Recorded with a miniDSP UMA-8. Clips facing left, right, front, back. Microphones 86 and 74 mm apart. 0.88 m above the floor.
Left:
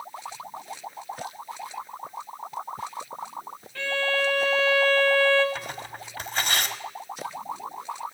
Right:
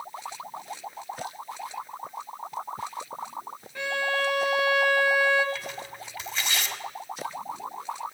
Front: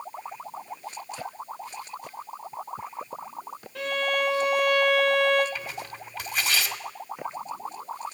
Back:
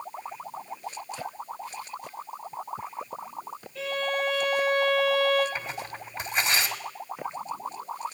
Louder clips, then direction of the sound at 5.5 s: Left 1 dB, back 1 dB; 115° left.